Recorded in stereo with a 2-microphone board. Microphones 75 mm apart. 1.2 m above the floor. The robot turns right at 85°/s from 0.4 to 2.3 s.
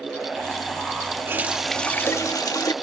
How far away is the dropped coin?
No dropped coin in this recording.